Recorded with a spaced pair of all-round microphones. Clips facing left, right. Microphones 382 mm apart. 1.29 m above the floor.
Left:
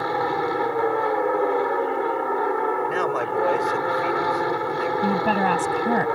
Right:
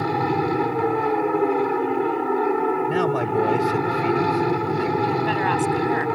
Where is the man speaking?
50° right (ahead or behind).